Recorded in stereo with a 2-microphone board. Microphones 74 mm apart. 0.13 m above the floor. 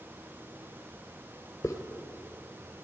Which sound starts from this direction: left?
A hiss, at 1.6 s.